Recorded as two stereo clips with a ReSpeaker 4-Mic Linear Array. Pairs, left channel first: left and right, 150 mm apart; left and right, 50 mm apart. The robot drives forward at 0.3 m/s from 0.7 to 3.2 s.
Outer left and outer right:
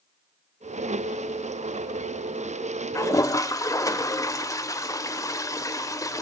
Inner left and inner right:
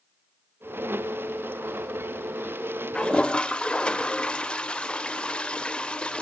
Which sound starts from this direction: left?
A toilet flushing, at 3.0 s.